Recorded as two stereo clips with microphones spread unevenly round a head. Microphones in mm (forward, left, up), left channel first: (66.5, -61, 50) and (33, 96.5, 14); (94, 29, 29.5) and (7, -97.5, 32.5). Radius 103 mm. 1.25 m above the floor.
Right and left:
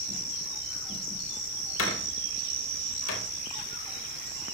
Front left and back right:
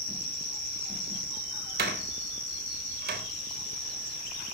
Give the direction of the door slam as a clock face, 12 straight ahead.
4 o'clock.